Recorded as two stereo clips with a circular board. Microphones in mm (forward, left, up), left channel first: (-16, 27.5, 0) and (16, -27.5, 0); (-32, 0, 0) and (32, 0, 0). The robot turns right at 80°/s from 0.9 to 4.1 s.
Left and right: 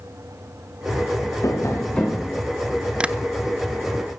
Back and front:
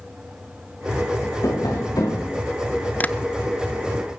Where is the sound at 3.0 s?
130° right, 0.7 m; by 3.1 s 115° right, 0.7 m.